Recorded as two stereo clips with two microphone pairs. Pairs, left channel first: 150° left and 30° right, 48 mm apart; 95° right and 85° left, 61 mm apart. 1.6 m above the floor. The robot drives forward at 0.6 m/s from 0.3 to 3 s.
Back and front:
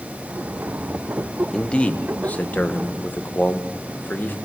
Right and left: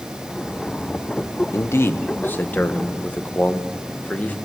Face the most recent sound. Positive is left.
turn(degrees=-155)